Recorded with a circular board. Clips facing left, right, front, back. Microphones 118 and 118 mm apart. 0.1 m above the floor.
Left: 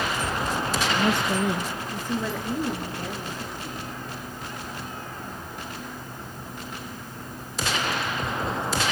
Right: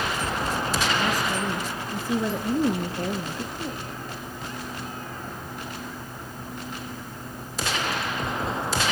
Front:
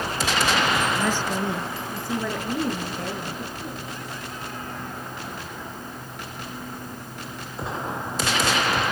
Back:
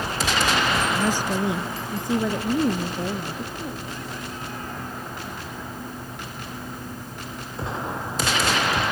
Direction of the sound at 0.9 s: 105° left.